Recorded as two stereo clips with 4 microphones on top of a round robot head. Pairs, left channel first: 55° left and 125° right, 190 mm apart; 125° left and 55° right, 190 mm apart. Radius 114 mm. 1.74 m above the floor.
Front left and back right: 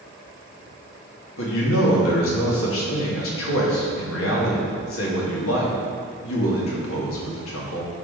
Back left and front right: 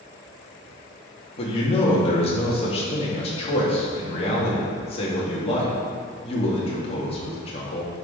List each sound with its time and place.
1.4 s a man speaking: 65° left, 3 m